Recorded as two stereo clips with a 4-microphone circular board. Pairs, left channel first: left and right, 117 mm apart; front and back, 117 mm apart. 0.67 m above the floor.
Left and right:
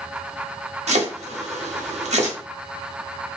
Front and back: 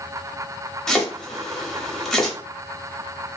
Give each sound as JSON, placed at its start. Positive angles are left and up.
{"t": 0.9, "sound": "chopping", "azimuth_deg": -85, "distance_m": 0.9}